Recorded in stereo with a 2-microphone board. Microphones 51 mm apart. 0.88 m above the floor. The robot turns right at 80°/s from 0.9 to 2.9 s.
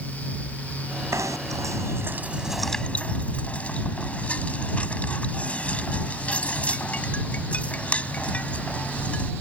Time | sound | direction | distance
1.1 | knocking | 60° right (ahead or behind) | ?